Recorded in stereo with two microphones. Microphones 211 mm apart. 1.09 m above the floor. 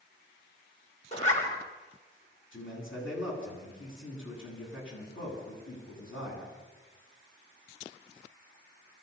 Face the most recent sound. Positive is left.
turn(degrees=75)  # may be behind; listen again after turning